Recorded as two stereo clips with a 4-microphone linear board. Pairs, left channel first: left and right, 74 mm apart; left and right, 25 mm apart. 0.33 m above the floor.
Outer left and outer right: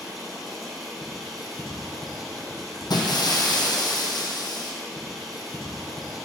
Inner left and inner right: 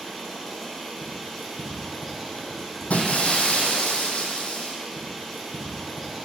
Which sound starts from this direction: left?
Breaking glass, at 2.9 s.